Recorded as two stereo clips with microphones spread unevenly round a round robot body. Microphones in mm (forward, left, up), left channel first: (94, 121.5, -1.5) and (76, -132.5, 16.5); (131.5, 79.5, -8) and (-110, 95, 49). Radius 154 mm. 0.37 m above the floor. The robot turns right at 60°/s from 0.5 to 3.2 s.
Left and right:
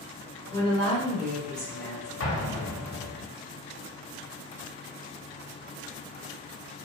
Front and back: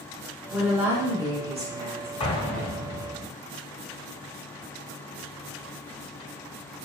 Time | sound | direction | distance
0.5 | a woman speaking | 50° left | 0.8 m
2.2 | an explosion | 55° left | 0.7 m